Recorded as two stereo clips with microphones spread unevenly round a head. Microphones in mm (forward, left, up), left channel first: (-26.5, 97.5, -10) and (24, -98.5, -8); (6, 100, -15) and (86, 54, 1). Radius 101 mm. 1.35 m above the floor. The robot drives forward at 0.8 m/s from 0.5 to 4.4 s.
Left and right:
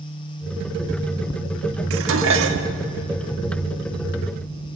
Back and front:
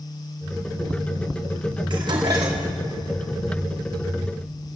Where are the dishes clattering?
75° right, 1.6 m; by 2.7 s 100° right, 1.5 m.